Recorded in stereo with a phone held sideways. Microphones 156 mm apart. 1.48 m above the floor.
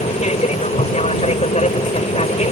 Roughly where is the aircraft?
Left.